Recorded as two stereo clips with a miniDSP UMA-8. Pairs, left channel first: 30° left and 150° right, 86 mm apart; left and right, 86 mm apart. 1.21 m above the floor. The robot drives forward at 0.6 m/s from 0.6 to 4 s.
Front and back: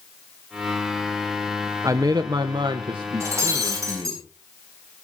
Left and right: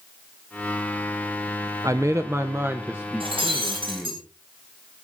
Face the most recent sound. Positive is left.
turn(degrees=-95)